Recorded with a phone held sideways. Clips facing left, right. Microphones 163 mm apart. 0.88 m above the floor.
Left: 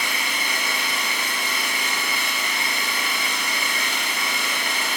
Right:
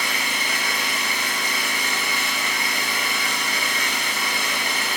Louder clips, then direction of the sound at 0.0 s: Right 1 dB; 45° right (ahead or behind).